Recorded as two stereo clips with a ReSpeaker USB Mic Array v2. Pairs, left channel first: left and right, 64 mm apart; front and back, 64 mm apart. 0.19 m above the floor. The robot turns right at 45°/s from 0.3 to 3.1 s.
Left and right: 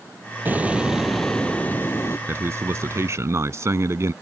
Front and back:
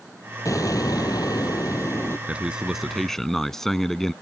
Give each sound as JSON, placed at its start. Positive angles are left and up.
{"t": 0.5, "sound": "an explosion", "azimuth_deg": -30}
{"t": 2.3, "sound": "a man speaking", "azimuth_deg": -120}